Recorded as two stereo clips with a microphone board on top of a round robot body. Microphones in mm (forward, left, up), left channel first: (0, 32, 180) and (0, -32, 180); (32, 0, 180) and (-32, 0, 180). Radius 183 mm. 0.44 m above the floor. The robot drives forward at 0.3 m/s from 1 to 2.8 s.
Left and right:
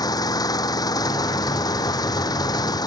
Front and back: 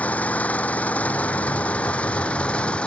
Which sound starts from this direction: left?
An engine running, at 0.0 s.